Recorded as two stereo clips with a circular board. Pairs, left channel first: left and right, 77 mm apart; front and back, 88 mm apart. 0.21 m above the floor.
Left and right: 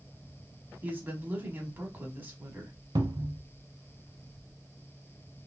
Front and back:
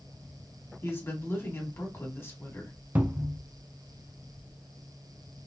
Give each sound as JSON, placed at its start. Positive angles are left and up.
{"t": 0.8, "sound": "a woman speaking", "azimuth_deg": -40, "distance_m": 1.3}
{"t": 3.0, "sound": "a cupboard door", "azimuth_deg": -115, "distance_m": 0.6}